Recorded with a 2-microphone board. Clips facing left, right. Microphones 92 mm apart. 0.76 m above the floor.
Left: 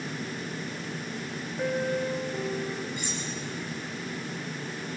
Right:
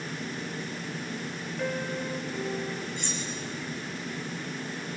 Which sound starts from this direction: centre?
Cutlery clinking, at 3.0 s.